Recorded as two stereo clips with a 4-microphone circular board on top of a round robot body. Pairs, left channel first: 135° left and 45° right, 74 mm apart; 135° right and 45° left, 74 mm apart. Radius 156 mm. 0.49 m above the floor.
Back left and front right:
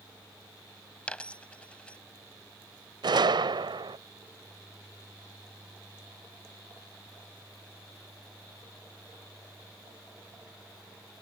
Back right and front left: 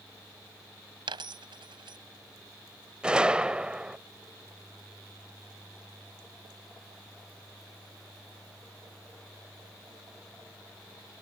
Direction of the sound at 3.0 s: 35° right.